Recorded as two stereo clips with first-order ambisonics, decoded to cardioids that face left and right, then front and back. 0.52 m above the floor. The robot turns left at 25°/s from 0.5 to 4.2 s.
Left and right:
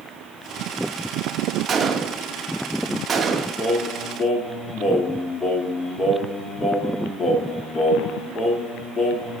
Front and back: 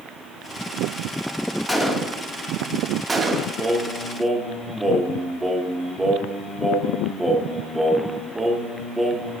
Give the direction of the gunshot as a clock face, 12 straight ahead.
3 o'clock.